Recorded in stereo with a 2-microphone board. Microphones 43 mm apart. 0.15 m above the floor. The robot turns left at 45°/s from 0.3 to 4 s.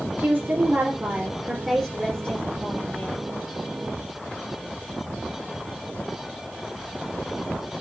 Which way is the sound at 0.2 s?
110° right.